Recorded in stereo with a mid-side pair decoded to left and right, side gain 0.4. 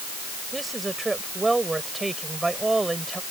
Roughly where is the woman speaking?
Ahead.